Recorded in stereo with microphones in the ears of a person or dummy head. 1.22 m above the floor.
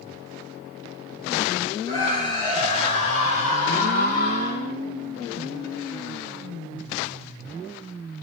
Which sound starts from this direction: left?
A scream, at 1.9 s.